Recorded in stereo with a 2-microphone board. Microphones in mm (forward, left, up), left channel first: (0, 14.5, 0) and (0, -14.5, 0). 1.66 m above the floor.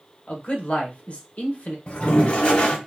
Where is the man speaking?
45° left (ahead or behind), 1.0 m.